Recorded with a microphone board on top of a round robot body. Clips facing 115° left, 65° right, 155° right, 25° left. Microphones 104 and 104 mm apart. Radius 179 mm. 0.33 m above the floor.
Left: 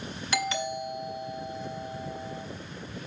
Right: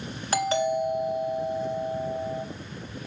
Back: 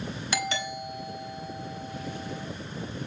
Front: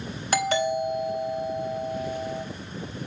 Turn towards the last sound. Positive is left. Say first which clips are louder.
# right 7 dB, front 9 dB
turn(degrees=-20)